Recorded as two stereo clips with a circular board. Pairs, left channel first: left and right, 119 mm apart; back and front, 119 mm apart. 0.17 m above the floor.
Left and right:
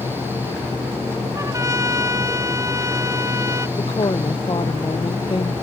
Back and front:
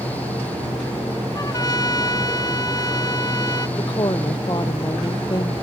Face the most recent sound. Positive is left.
turn(degrees=130)